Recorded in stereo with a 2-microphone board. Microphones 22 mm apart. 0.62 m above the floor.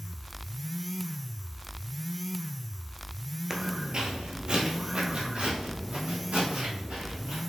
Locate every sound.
3.5 s footsteps: 20° right (ahead or behind), 0.6 m; by 7.4 s 75° right (ahead or behind), 2.5 m